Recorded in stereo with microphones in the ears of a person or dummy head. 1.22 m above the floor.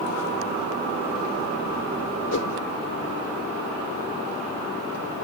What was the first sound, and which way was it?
A whoosh, 75° left (ahead or behind).